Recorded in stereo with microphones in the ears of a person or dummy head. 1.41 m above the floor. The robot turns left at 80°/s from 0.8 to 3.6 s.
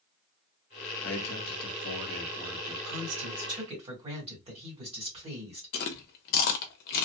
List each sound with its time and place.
1.0 s a man speaking: 115° left, 0.8 m; by 2.8 s 20° right, 0.8 m
2.9 s a woman speaking: 95° right, 1.6 m; by 5.7 s 155° right, 1.6 m
5.7 s chewing: 50° left (ahead or behind), 0.6 m